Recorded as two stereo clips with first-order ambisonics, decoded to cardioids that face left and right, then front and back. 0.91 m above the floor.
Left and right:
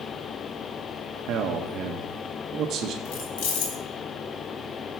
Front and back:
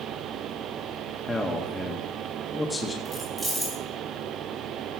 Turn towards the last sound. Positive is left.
turn(degrees=90)